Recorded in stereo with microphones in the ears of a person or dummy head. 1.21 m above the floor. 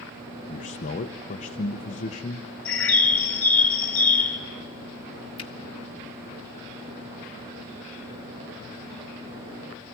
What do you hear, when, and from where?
0.5 s a man speaking: 35° left (ahead or behind), 0.8 m
2.6 s a bird: 10° left (ahead or behind), 1.1 m
5.4 s a finger snap: 25° left (ahead or behind), 1.3 m